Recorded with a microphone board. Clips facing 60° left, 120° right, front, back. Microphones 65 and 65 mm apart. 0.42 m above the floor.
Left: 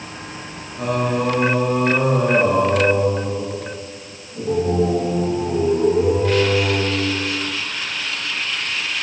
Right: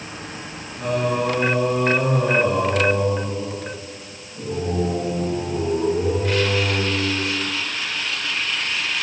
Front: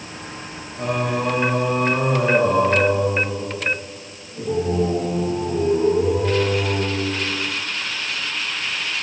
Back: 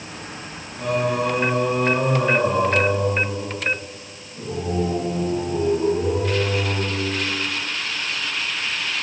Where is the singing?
45° left, 5 m.